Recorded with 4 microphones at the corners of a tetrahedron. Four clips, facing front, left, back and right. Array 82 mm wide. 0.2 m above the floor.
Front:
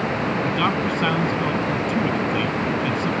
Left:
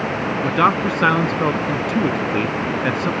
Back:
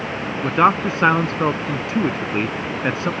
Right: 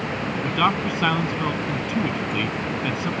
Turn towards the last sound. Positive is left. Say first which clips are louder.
# left 5 dB, back 9 dB
turn(degrees=145)